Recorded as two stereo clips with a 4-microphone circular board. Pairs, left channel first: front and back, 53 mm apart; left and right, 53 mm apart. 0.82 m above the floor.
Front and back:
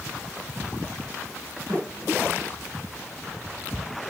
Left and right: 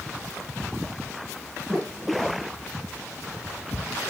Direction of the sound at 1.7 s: 175° left.